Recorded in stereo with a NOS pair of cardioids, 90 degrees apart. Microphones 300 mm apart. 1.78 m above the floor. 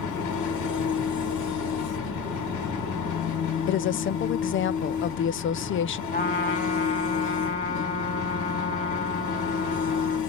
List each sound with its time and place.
0.0 s an engine running: 70° left, 2 m
3.7 s a woman speaking: 40° left, 0.5 m
6.1 s a trumpet: 25° left, 2 m